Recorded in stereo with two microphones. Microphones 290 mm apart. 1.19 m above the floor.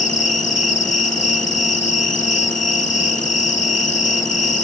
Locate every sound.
0.0 s an insect: 60° left (ahead or behind), 1.1 m